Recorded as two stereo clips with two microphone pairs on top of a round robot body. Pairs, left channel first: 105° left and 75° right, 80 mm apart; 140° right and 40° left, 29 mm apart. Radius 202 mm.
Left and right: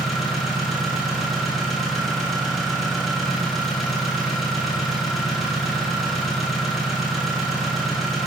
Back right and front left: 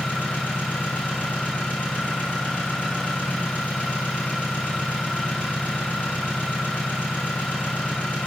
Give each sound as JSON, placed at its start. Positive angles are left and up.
{"t": 0.0, "sound": "an engine running", "azimuth_deg": -170, "distance_m": 1.9}